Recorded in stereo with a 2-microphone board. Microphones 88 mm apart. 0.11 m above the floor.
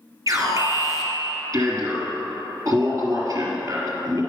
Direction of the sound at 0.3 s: 40° right (ahead or behind).